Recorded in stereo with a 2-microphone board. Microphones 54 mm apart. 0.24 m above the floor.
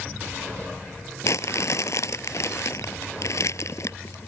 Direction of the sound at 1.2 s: 75° left (ahead or behind).